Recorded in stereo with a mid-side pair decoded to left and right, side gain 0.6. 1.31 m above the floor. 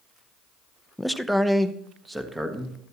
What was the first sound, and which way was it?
A man speaking, 5° left.